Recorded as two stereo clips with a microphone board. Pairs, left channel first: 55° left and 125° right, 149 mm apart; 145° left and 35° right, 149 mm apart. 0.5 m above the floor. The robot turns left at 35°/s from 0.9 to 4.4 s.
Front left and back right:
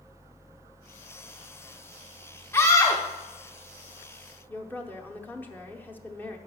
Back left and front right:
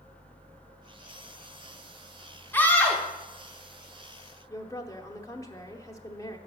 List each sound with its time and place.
2.5 s a scream: 95° left, 0.8 m; by 3.0 s 75° left, 0.8 m
4.5 s a woman speaking: 115° left, 0.8 m